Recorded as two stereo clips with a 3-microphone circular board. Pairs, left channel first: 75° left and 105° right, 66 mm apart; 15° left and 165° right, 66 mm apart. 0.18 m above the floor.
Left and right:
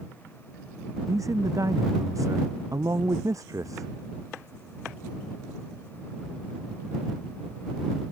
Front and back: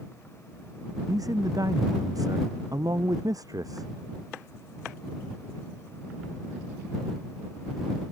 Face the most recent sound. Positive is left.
turn(degrees=-140)